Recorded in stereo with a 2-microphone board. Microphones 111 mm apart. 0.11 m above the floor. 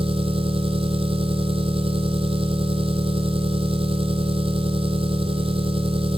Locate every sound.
0.0 s an engine running: 55° right (ahead or behind), 1.4 m